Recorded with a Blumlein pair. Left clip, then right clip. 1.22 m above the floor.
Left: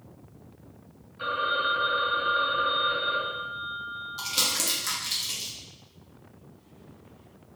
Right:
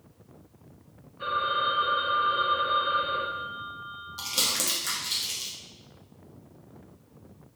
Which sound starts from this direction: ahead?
Crumpling, at 4.2 s.